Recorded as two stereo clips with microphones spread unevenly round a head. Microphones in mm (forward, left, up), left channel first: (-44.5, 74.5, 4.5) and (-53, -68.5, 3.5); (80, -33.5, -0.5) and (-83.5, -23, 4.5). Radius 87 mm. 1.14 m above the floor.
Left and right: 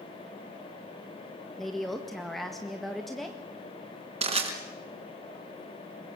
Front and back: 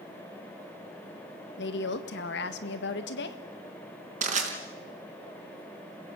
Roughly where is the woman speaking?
Ahead.